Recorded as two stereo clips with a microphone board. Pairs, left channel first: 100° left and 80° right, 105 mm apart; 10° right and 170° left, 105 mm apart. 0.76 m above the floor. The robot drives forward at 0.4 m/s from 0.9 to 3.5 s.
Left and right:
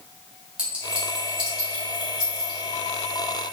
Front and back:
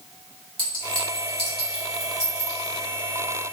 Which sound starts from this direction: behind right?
A clink, at 0.6 s.